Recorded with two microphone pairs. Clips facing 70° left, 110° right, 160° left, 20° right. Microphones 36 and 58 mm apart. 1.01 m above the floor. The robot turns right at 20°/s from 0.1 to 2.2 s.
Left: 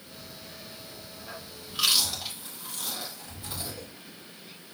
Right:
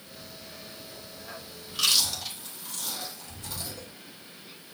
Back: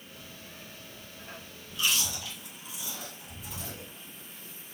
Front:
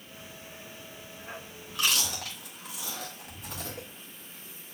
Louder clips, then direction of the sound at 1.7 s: Even, front 1 dB; 5° right.